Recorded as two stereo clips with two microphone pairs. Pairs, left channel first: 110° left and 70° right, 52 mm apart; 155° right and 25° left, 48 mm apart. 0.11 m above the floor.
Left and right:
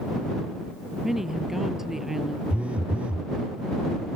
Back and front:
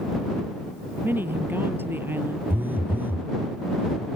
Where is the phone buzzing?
10° right.